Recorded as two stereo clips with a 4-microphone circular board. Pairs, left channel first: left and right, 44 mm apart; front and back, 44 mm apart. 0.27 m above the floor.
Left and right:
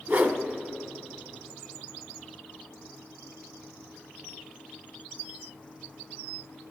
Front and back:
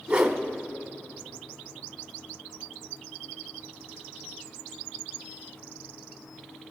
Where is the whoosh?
115° right, 1.0 m.